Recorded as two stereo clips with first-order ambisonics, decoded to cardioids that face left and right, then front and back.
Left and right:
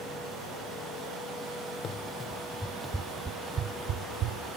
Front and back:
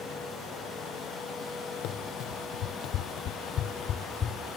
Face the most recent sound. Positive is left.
turn(degrees=-65)